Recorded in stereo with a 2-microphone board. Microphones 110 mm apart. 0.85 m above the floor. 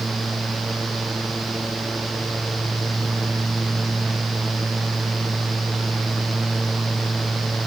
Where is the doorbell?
I don't hear a doorbell.